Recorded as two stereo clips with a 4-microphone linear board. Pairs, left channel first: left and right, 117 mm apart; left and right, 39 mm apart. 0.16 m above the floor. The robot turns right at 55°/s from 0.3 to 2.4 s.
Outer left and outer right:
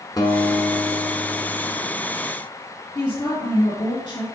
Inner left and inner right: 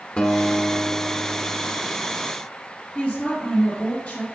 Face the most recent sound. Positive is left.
turn(degrees=45)  # may be behind; listen again after turning